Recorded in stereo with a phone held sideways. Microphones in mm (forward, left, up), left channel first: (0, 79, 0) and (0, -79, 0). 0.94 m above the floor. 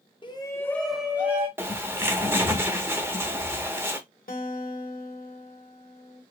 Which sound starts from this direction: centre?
A bird, at 1.6 s.